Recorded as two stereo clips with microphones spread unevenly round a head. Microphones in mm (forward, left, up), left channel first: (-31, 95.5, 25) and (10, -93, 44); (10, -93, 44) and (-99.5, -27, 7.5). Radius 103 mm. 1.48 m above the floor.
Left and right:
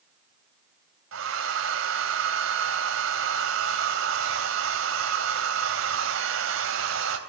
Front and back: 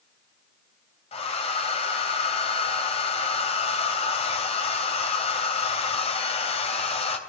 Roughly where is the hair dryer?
Ahead right.